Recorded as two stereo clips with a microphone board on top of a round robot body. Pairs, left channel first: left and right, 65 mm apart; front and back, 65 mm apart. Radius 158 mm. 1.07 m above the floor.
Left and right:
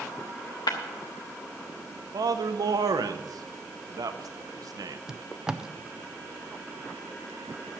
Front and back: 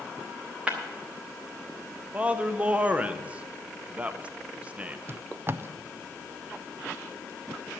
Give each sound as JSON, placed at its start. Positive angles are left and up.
{"t": 0.7, "sound": "breaking glass", "azimuth_deg": 105, "distance_m": 0.6}
{"t": 2.1, "sound": "a man speaking", "azimuth_deg": -110, "distance_m": 0.7}
{"t": 5.1, "sound": "tape being pulled", "azimuth_deg": -165, "distance_m": 0.7}